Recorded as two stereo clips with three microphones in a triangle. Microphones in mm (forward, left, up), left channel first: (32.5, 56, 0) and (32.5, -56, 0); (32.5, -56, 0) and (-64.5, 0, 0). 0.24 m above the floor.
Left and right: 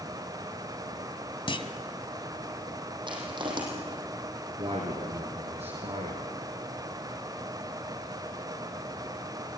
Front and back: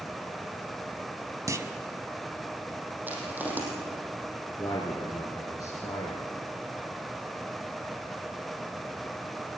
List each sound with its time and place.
1.5 s a clunk: 100° left, 1.6 m
3.1 s crushing: 135° right, 7 m
4.6 s a man speaking: 85° right, 4 m